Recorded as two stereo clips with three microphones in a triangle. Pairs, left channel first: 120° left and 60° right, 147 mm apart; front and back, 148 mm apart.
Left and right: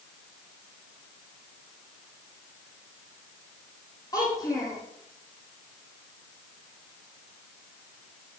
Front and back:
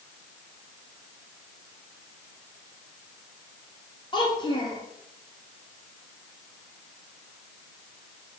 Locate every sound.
4.1 s a child speaking: 55° left, 7 m